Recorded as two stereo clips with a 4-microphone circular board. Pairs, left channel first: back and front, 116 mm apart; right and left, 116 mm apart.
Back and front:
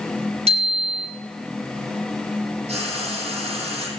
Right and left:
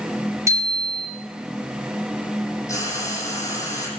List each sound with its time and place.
0.5 s a bicycle bell: 25° left, 4 m
2.7 s frying: 25° right, 4 m